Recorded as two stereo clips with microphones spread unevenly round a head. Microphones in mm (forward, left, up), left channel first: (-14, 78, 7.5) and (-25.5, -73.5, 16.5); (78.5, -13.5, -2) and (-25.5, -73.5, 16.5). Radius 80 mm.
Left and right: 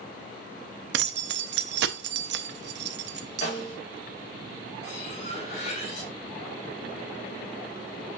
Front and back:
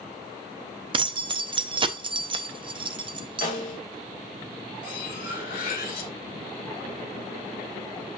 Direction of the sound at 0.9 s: 105° right.